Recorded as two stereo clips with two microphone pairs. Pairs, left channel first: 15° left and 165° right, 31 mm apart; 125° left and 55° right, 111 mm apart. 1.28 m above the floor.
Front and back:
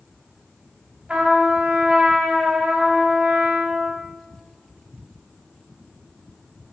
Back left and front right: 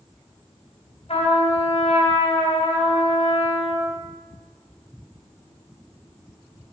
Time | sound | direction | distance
1.1 | a trumpet | 140° left | 3 m